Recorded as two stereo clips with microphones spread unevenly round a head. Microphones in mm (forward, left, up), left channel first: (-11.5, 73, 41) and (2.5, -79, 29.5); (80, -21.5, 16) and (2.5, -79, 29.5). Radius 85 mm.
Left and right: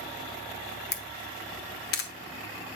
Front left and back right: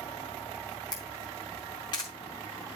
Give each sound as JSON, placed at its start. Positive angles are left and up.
{"t": 0.9, "sound": "a camera shutter", "azimuth_deg": 105, "distance_m": 1.3}